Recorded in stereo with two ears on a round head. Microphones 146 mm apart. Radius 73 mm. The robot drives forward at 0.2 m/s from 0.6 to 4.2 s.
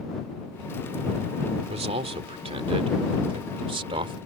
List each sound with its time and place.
1.6 s a man speaking: 40° right (ahead or behind); by 4.2 s 35° right (ahead or behind)